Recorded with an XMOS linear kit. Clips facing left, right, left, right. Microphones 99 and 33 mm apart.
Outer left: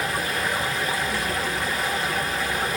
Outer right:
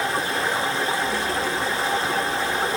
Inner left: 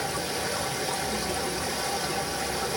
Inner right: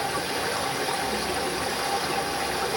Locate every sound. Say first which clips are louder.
0.0 s running water: outer right 2 dB, inner right 3 dB; 30° right (ahead or behind), 1.5 m